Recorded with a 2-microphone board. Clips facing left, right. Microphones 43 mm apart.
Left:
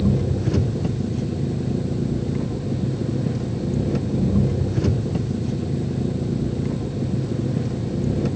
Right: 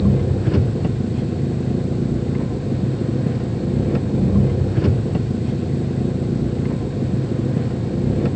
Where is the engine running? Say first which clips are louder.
Right 3 dB; 15° right (ahead or behind).